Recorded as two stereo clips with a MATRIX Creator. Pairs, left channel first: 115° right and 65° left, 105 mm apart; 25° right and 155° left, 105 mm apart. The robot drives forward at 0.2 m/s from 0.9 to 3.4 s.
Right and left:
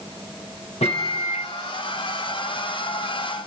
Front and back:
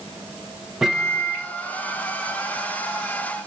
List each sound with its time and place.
0.8 s a microwave: 120° right, 1.0 m; by 1.5 s 125° right, 1.1 m